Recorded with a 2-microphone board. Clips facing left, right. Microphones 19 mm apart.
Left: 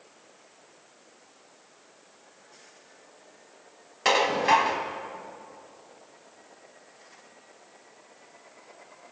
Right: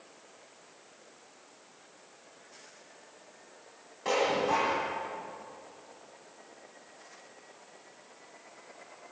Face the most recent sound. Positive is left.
turn(degrees=80)